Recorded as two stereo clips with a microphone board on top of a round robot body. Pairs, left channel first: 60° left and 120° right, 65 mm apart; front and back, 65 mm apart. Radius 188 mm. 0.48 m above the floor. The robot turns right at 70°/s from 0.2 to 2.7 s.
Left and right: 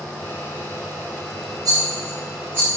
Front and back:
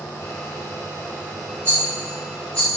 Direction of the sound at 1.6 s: 140° right.